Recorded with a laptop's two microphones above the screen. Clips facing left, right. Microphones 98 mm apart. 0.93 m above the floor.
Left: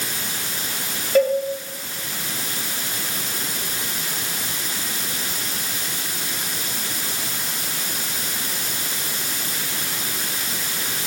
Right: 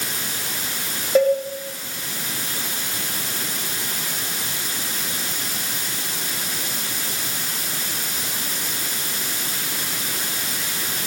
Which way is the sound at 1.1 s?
10° right (ahead or behind).